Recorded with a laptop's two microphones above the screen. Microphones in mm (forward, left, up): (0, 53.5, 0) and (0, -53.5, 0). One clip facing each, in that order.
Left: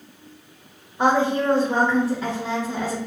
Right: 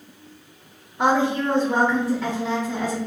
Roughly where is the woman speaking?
Centre.